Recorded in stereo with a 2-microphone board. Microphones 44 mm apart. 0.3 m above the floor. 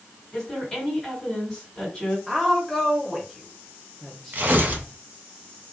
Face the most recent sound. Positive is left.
turn(degrees=-40)  # may be behind; listen again after turning